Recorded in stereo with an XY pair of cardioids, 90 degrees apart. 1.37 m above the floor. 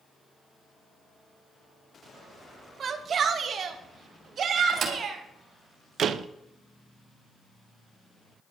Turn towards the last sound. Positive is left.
turn(degrees=-65)